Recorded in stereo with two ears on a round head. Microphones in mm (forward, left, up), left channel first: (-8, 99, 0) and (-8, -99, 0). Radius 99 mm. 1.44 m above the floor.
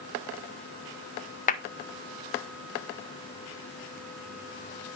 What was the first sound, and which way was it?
A clap, 35° left (ahead or behind).